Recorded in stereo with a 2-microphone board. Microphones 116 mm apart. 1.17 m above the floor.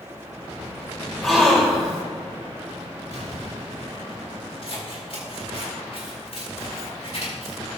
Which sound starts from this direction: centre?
A gasp, at 1.2 s.